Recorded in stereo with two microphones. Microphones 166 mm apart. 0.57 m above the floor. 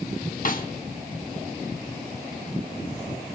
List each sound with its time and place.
0.5 s a snare drum: 55° left (ahead or behind), 0.9 m